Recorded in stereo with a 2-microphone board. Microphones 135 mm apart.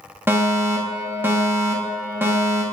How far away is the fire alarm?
About 1.6 m.